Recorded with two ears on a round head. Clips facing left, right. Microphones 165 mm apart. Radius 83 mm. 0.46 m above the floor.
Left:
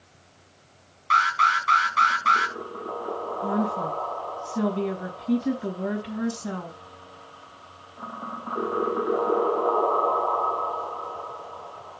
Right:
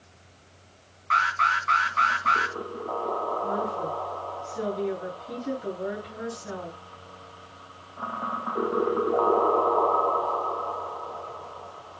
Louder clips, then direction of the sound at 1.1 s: Left 2 dB; 50° left (ahead or behind).